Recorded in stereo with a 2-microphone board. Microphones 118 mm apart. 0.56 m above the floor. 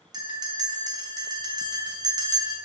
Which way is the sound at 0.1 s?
35° right (ahead or behind).